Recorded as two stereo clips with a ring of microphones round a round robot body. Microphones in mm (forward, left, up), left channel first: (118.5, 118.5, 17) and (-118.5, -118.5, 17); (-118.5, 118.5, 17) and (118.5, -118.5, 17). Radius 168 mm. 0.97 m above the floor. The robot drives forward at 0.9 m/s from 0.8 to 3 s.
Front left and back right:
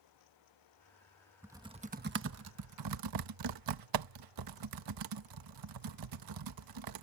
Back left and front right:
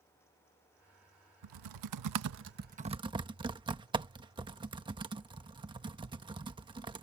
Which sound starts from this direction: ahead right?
Typing on a keyboard, at 1.4 s.